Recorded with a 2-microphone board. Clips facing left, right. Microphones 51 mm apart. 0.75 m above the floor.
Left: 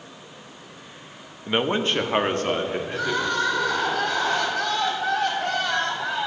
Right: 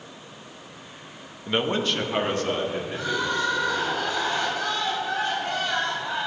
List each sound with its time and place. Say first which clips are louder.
1.5 s a man speaking: left 2 dB; 10° left (ahead or behind), 0.9 m; by 3.9 s 50° left (ahead or behind), 3.5 m
2.9 s crying: left 2 dB; 70° left (ahead or behind), 4 m